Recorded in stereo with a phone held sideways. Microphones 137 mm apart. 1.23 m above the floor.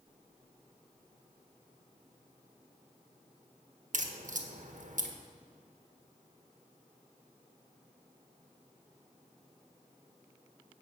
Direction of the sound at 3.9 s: 65° right (ahead or behind).